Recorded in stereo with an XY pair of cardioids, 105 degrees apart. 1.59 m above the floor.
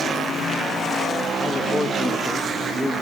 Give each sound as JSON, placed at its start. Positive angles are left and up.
{"t": 1.4, "sound": "a man speaking", "azimuth_deg": 25, "distance_m": 2.0}